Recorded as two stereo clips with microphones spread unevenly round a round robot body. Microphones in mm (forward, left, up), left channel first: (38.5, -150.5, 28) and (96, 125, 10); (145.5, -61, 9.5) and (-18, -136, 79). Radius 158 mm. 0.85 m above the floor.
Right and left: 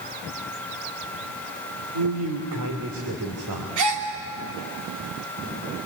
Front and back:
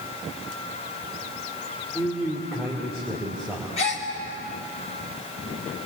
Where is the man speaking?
110° left, 2.5 m.